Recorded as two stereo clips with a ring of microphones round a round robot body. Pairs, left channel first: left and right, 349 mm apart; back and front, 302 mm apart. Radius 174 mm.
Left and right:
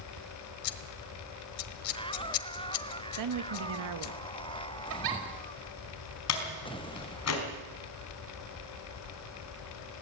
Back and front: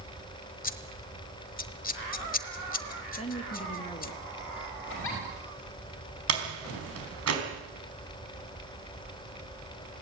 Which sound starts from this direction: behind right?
A giggle, at 4.9 s.